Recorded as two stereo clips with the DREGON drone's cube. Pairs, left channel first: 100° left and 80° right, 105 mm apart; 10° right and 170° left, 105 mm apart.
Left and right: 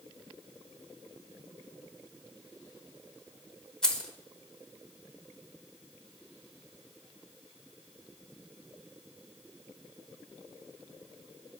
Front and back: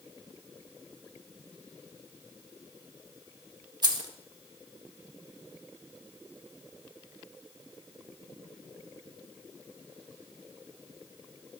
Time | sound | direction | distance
3.8 | keys jangling | straight behind | 0.9 m